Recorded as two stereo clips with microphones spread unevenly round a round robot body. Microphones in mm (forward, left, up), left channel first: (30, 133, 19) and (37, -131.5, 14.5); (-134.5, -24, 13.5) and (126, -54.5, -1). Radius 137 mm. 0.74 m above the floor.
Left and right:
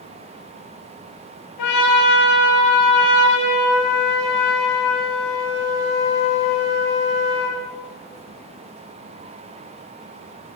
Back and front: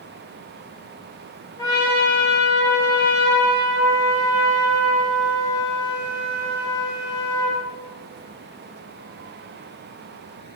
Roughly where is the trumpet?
Left.